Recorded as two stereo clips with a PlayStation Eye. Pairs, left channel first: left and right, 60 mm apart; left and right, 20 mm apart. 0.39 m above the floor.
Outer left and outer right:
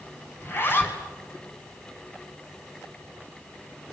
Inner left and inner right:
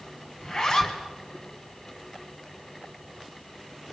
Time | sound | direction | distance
0.4 | a zipper | 35° left (ahead or behind) | 4 m